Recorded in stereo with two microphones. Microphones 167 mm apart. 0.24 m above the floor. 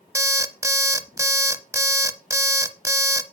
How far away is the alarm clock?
About 0.6 m.